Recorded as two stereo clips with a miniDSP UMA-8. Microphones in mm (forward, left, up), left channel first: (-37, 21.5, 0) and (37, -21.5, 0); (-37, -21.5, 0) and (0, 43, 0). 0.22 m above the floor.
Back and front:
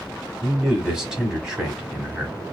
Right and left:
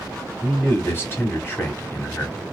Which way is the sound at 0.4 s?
105° right.